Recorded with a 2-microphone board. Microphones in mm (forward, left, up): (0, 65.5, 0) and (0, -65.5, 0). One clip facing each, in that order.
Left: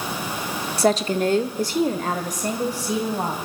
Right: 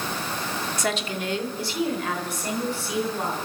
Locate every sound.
0.8 s a woman speaking: 35° left (ahead or behind), 1.2 m; by 3.4 s 40° left (ahead or behind), 4 m